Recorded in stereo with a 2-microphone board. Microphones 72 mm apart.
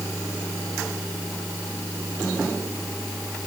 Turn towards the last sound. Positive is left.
No sound to turn to.